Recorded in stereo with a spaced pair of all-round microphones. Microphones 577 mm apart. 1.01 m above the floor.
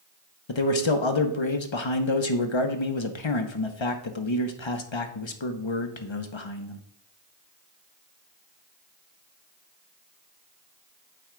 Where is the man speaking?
50° left (ahead or behind), 0.9 m.